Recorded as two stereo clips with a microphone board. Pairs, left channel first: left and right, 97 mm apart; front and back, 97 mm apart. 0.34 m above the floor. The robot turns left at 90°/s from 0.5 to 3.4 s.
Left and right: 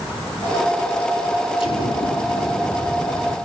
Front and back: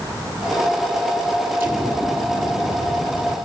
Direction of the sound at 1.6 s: 110° left.